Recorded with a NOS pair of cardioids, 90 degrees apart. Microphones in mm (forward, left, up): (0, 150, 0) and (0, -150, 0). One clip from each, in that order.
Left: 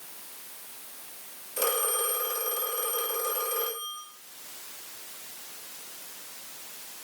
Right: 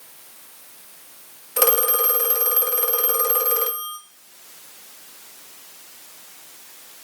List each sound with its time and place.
1.6 s a phone ringing: 65° right, 1.3 m